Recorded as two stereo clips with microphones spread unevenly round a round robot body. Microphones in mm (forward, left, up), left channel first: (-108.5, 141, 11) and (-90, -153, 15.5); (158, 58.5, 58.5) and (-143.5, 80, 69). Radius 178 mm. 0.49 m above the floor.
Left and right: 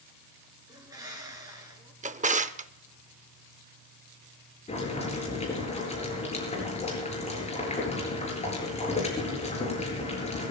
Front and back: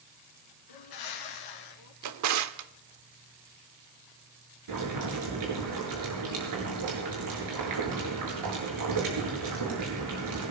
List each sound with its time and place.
0.7 s a bird: 5° right, 1.7 m
2.0 s a drawer: 155° right, 0.7 m
4.7 s boiling: 160° left, 8 m